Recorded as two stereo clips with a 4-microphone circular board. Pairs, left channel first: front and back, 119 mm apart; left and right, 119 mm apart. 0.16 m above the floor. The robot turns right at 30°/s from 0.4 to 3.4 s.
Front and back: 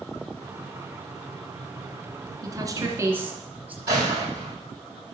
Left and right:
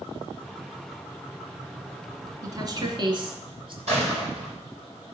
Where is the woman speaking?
140° right, 2 m; by 3.8 s 110° right, 2 m.